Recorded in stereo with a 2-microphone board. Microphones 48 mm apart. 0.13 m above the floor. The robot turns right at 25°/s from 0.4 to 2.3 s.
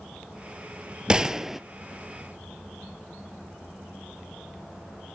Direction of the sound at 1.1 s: 20° right (ahead or behind).